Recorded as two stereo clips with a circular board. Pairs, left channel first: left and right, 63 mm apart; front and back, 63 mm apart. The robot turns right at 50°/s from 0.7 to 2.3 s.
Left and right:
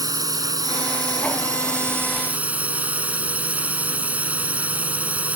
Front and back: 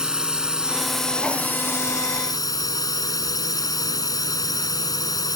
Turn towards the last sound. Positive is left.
turn(degrees=-20)